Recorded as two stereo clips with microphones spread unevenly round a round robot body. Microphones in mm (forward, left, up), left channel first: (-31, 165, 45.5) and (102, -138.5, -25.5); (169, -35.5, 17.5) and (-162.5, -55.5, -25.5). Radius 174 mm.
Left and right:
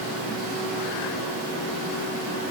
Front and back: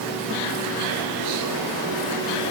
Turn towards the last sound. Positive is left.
No sound to turn to.